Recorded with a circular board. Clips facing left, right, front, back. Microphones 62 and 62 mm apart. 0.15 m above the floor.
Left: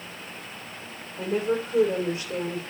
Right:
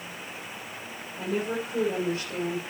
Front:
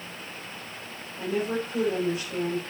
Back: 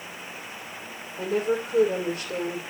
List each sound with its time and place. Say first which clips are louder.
1.2 s a woman speaking: left 4 dB, back 3 dB; 155° left, 6.5 m